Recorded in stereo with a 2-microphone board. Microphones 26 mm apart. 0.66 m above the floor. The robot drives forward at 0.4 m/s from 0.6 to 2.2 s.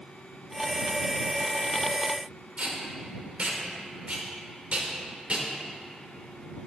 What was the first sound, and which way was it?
Tape being pulled, 55° right (ahead or behind).